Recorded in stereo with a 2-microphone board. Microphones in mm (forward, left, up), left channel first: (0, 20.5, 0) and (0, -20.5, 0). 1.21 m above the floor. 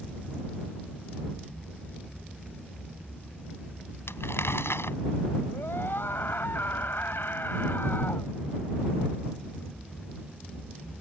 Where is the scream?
60° left (ahead or behind).